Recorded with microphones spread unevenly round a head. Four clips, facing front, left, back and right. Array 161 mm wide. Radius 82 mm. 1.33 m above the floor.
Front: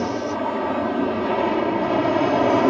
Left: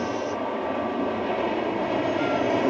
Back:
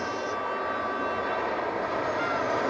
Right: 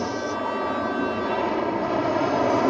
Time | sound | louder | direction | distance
0.0 | an aircraft | right 1 dB, front 7 dB | straight ahead | ?